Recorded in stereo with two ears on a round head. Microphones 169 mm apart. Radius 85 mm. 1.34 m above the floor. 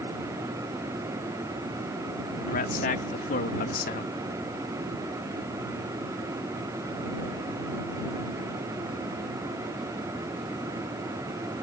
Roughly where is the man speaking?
Left.